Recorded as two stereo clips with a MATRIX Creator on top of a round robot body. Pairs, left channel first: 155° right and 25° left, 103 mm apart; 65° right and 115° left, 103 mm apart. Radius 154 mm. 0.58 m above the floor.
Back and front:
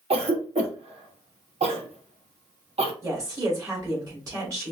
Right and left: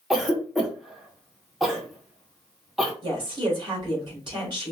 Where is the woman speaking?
75° left, 2.5 m.